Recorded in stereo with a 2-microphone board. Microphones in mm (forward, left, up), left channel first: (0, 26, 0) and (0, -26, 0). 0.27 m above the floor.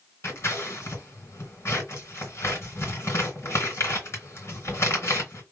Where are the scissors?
55° left (ahead or behind), 2.5 m.